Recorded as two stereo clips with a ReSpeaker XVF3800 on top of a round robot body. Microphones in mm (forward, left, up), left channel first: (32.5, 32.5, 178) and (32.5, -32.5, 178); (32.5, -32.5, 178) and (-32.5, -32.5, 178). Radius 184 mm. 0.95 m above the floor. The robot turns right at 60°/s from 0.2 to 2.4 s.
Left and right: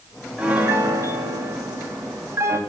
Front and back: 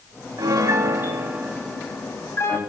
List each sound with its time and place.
0.4 s a piano: 165° right, 1.5 m; by 2.6 s 45° right, 1.5 m